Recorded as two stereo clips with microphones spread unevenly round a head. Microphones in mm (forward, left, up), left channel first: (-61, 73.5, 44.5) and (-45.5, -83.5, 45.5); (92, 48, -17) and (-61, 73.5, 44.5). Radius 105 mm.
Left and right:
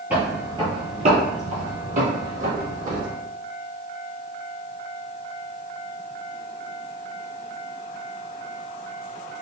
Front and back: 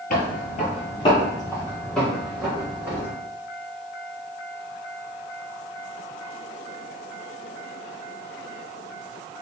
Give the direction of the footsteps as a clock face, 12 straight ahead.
12 o'clock.